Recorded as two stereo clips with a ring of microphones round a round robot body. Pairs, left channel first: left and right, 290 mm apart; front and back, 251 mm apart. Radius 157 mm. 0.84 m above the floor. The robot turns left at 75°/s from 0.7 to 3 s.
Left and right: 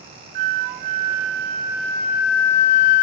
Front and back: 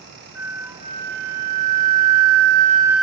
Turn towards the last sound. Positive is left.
turn(degrees=90)